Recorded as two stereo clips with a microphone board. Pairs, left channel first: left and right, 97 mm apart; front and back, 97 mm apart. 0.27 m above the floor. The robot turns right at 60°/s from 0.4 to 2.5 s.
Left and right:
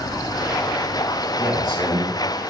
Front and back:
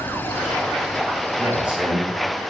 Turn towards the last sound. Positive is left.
turn(degrees=-55)